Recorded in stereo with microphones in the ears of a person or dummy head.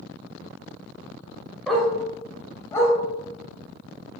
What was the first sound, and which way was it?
A dog barking, centre (ahead or behind).